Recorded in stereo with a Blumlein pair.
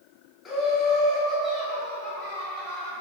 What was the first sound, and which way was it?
Laughter, 20° left.